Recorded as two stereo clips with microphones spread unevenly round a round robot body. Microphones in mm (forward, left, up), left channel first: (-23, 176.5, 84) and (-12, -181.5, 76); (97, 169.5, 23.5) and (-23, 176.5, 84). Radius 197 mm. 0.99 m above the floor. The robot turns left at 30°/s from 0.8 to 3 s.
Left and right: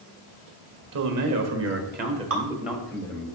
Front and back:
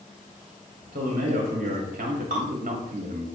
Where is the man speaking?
120° right, 1.4 m; by 3.3 s 175° left, 1.4 m.